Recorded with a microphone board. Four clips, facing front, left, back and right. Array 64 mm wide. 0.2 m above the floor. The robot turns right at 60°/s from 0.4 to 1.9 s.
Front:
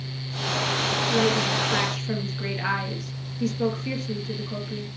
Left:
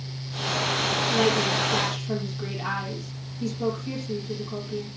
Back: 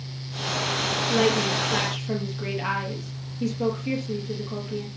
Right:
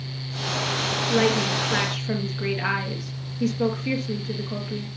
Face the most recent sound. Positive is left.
turn(degrees=-60)